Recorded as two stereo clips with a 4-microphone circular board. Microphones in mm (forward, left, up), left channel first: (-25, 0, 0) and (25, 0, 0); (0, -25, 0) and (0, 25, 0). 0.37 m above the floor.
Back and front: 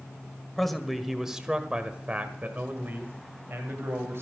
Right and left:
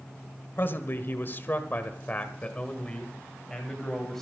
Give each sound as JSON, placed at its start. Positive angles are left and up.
{"t": 0.6, "sound": "a man speaking", "azimuth_deg": -95, "distance_m": 1.4}